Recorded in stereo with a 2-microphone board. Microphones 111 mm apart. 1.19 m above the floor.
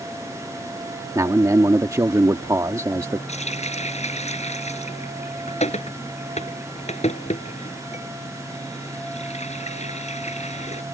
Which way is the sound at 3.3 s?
85° left.